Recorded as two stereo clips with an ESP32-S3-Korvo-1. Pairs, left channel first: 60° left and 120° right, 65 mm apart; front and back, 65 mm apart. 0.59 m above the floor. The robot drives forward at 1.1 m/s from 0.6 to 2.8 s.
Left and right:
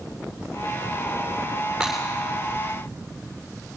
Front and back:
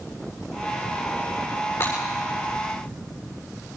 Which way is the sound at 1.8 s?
35° right.